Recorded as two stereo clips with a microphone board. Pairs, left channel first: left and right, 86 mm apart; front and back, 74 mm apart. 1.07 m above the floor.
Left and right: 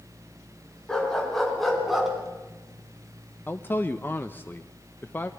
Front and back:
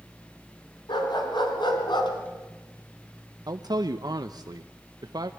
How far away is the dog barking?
About 4.5 m.